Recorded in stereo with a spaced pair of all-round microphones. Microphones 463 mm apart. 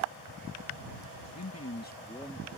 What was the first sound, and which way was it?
A man speaking, 35° left (ahead or behind).